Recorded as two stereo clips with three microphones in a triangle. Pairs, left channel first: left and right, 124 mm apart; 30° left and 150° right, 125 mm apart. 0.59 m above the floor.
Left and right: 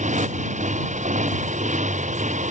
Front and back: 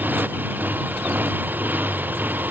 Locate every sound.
0.0 s a motorcycle: 75° right